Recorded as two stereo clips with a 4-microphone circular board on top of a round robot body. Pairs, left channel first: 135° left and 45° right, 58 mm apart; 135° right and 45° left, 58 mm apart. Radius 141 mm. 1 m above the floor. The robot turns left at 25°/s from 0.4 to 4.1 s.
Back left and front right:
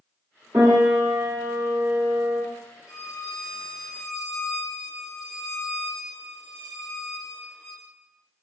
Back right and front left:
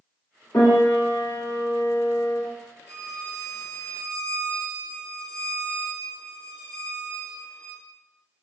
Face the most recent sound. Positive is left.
turn(degrees=-130)